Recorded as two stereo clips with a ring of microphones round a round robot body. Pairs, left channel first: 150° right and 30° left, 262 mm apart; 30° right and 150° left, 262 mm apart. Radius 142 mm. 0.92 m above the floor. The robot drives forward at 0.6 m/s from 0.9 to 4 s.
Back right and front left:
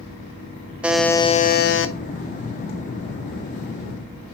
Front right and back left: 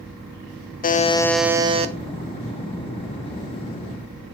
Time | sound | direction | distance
0.8 | a buzzer | 50° right | 0.5 m